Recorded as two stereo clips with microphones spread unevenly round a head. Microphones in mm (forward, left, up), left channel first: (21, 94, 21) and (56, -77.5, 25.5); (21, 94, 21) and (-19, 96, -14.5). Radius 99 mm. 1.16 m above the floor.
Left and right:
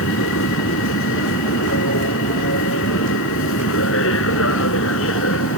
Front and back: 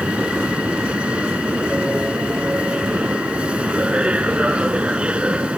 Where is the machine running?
105° left.